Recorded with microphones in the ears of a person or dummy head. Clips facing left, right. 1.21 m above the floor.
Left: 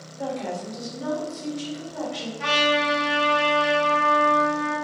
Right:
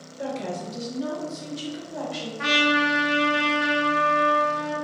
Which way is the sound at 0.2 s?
30° right (ahead or behind).